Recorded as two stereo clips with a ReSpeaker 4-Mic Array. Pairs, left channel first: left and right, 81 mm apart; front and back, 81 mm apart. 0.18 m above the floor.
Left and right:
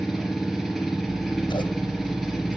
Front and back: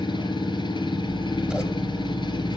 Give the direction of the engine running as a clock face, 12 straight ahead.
12 o'clock.